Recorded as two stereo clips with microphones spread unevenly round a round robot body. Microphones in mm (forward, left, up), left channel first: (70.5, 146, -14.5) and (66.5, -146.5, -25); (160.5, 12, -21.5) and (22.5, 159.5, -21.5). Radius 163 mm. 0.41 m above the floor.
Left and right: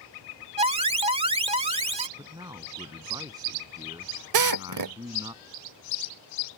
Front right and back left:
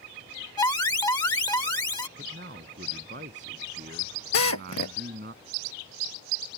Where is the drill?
75° right.